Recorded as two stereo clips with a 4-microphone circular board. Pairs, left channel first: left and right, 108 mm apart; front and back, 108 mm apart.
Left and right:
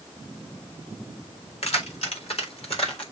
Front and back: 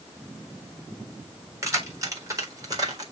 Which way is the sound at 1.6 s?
115° left.